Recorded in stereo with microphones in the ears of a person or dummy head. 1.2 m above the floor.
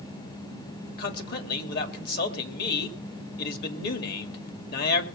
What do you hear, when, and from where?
1.0 s a man speaking: 55° left (ahead or behind), 2.5 m